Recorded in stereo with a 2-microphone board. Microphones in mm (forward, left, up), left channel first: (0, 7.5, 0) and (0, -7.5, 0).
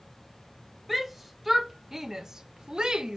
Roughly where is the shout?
Centre.